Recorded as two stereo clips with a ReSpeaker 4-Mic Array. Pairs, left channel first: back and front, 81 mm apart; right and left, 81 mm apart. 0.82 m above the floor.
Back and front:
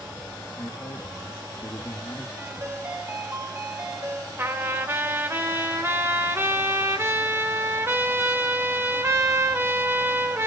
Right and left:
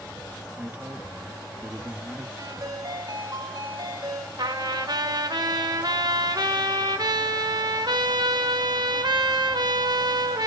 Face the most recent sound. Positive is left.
turn(degrees=60)